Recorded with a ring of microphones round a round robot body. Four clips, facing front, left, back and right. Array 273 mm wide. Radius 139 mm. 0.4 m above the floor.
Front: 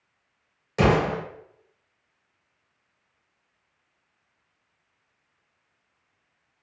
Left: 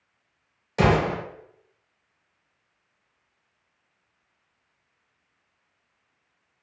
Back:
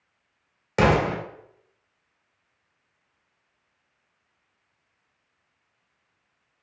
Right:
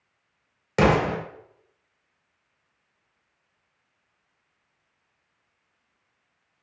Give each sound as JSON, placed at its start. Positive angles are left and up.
{"t": 0.8, "sound": "an explosion", "azimuth_deg": -135, "distance_m": 1.3}